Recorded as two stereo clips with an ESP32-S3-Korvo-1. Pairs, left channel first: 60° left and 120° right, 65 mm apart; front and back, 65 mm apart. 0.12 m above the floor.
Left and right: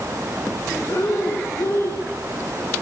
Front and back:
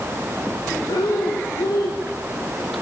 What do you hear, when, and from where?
0.9 s breathing: 15° left, 5 m